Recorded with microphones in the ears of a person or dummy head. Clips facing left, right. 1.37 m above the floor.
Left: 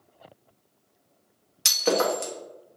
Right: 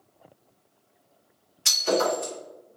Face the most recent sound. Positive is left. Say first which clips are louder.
# even
turn(degrees=65)  # may be behind; listen again after turning